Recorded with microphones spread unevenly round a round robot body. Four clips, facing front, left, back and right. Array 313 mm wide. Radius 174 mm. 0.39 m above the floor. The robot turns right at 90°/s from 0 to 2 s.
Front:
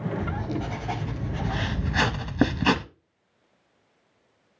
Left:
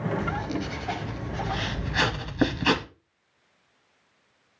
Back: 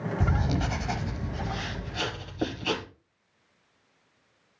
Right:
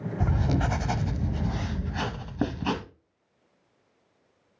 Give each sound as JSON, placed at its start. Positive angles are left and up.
{"t": 0.2, "sound": "writing", "azimuth_deg": -165, "distance_m": 0.6}